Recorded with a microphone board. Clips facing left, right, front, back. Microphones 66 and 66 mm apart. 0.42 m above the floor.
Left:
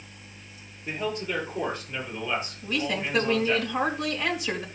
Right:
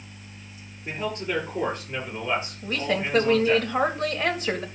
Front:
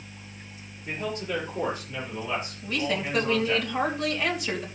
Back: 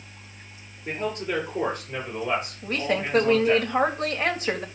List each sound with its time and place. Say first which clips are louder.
0.8 s a man speaking: right 1 dB, back 3 dB; 135° right, 8.5 m; by 3.6 s 150° right, 8 m
2.6 s a woman speaking: right 2 dB, even; 135° right, 2.5 m